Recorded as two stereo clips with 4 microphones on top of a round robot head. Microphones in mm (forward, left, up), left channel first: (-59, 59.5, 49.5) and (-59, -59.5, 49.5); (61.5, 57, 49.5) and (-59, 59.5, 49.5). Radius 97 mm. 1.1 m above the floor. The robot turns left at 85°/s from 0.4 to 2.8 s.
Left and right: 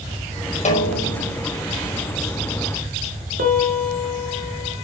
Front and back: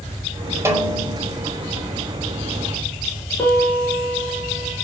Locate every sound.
0.7 s a snare drum: 110° left, 5 m; by 1.3 s 55° left, 5 m
3.4 s a piano: 80° right, 5.5 m